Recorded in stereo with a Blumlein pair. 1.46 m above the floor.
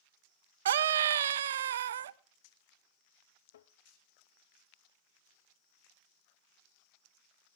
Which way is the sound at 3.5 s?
60° left.